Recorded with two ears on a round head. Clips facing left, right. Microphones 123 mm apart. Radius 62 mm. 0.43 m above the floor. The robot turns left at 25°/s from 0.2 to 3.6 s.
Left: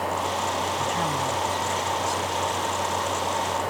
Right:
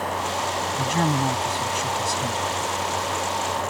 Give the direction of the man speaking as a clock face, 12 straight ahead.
1 o'clock.